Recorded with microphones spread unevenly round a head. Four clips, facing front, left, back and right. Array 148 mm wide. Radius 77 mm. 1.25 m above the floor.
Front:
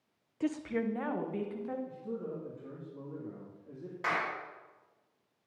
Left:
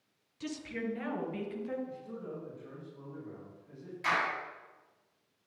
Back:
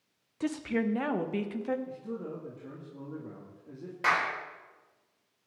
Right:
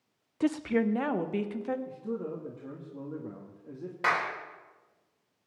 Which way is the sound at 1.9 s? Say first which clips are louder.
Right 7 dB, back 1 dB; 105° right.